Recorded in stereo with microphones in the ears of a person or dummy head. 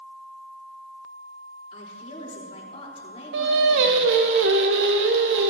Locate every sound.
1.7 s a woman speaking: 35° left (ahead or behind), 4 m
3.3 s singing: 70° right (ahead or behind), 1.1 m